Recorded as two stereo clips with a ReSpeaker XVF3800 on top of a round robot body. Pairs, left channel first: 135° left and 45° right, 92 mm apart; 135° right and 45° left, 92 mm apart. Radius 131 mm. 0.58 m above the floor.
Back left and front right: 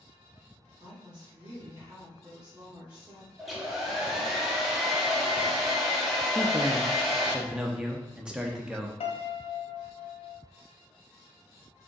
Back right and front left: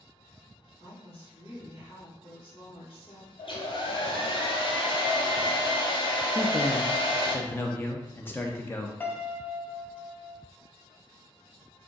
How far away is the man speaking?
About 0.7 m.